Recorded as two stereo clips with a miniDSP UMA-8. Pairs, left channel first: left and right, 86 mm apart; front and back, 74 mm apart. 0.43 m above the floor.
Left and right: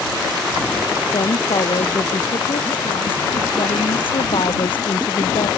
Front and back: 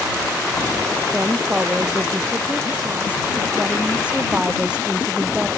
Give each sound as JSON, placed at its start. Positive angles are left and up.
{"t": 1.1, "sound": "a woman speaking", "azimuth_deg": 110}